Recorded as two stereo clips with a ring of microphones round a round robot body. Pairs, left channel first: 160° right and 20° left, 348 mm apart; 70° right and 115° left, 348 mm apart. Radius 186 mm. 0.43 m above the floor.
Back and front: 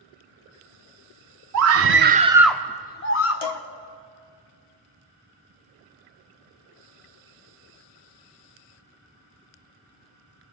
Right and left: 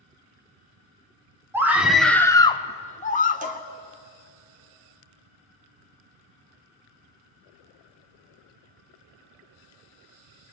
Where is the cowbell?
Straight behind, 1.3 m.